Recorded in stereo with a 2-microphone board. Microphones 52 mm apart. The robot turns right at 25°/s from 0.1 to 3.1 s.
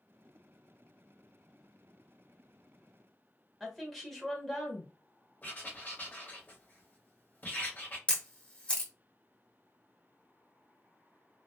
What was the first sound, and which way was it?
A woman speaking, centre (ahead or behind).